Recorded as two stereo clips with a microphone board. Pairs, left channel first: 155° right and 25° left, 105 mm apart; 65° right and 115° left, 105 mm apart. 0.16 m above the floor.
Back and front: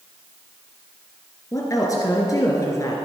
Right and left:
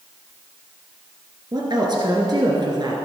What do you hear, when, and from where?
1.5 s a woman speaking: 150° left, 2 m